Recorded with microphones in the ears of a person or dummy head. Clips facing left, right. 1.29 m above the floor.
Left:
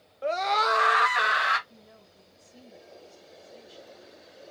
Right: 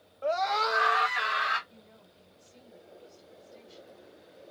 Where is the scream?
25° left (ahead or behind), 0.7 m; by 1.6 s 80° left, 1.5 m.